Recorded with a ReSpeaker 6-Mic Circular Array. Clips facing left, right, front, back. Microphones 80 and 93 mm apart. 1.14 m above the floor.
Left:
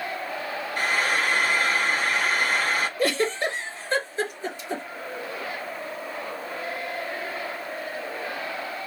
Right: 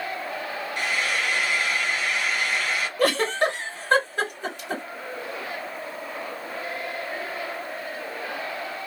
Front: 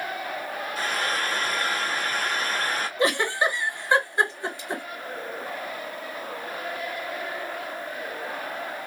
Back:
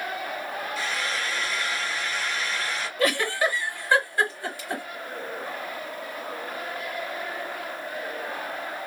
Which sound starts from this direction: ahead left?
Frying, at 0.8 s.